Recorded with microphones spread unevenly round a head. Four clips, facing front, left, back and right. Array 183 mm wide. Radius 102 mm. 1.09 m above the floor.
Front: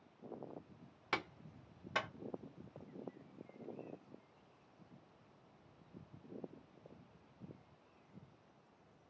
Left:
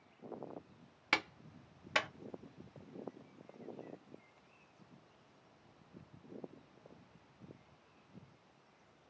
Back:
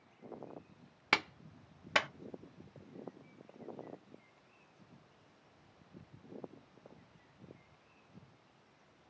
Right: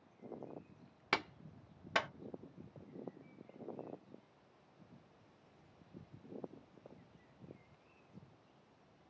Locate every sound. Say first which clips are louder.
1.1 s a clap: even, back 6 dB; straight behind, 0.9 m